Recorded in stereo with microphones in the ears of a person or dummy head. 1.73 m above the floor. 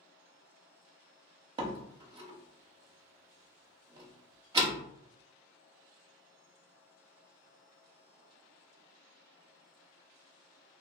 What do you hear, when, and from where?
1.6 s a door slam: 30° right (ahead or behind), 0.7 m